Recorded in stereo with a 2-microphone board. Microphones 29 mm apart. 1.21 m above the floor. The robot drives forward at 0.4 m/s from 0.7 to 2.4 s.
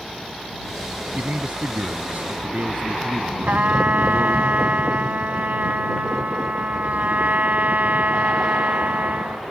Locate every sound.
1.1 s a man speaking: 55° right (ahead or behind); by 4.5 s 60° right (ahead or behind)
3.5 s a trumpet: 70° right (ahead or behind)